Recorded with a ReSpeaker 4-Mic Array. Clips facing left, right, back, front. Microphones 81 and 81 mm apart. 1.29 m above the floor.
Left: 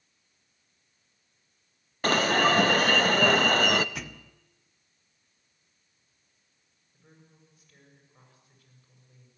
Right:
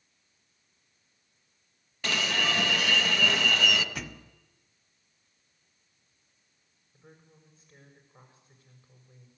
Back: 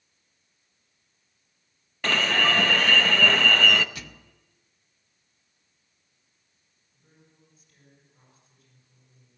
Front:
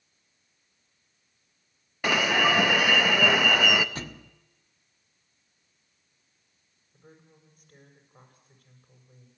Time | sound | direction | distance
2.0 | an alarm | 75° left | 0.6 m
4.0 | a thud | straight ahead | 0.6 m
6.9 | a woman speaking | 25° right | 7 m